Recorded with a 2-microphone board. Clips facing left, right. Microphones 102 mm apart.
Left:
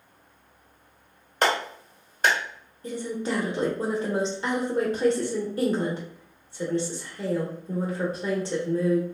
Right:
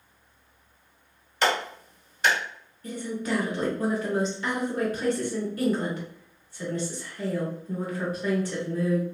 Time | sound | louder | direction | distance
1.4 | a clap | left 1 dB | 45° left (ahead or behind) | 1.2 m
2.8 | a woman speaking | left 1 dB | 25° left (ahead or behind) | 0.7 m